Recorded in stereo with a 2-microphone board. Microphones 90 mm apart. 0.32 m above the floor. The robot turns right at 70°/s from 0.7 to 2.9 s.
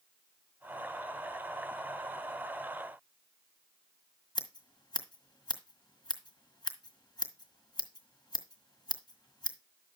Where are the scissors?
55° left (ahead or behind), 1.6 m.